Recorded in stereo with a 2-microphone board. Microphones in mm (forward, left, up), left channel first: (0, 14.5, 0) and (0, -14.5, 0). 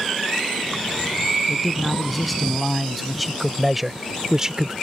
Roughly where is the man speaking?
Centre.